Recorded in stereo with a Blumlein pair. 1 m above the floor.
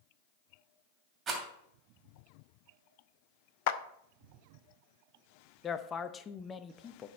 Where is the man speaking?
20° left, 0.7 m.